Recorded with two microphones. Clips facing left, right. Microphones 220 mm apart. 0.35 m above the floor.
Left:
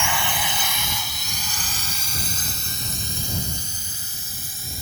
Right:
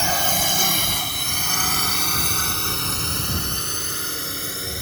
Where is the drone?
40° right (ahead or behind); by 4.8 s 70° right (ahead or behind).